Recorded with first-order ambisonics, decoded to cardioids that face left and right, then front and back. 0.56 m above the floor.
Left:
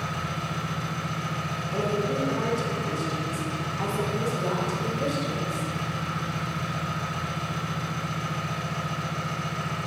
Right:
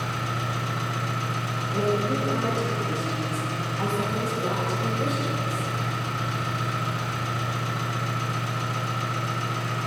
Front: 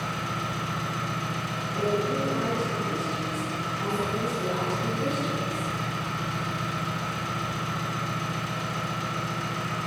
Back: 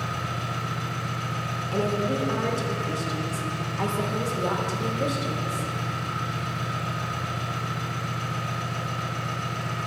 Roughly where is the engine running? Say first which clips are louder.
Right 2 dB, even; ahead right.